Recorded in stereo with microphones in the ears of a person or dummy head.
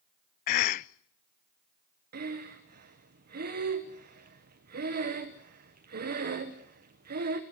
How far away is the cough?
About 0.5 m.